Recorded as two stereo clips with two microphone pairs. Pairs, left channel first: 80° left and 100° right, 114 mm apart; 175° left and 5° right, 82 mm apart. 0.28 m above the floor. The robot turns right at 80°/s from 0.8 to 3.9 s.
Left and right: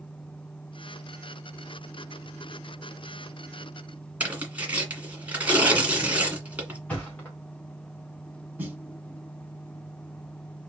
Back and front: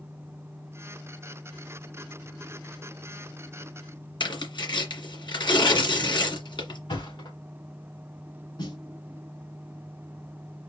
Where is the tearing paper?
175° right, 1.9 m.